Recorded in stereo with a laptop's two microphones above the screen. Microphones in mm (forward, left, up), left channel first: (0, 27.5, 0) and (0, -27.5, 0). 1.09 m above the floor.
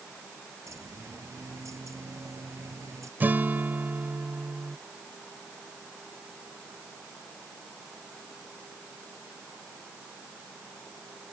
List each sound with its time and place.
0.7 s a bird: 70° right (ahead or behind)
3.2 s a guitar: 35° right (ahead or behind)